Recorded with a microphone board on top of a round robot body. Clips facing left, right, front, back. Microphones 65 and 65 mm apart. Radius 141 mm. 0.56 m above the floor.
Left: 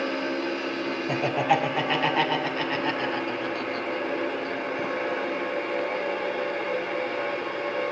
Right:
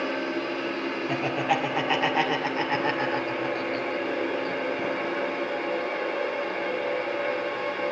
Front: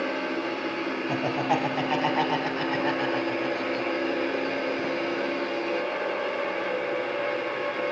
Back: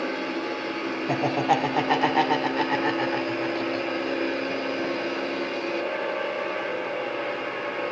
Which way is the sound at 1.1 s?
170° left.